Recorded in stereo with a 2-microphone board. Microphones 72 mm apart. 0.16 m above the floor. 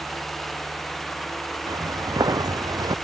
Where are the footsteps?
60° right (ahead or behind); by 3.0 s 65° right (ahead or behind).